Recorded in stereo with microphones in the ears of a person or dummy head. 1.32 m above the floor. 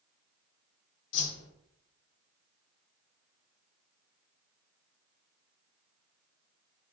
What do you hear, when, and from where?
1.1 s a whoosh: 70° left (ahead or behind), 4 m